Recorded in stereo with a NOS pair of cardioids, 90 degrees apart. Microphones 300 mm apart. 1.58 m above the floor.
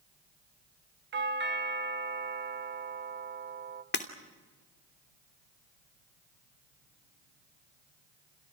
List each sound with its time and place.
1.1 s a doorbell: 35° right, 1.4 m
3.9 s breaking glass: 35° left, 3 m